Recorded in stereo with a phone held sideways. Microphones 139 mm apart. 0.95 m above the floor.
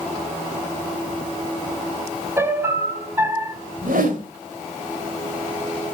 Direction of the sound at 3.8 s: 85° right.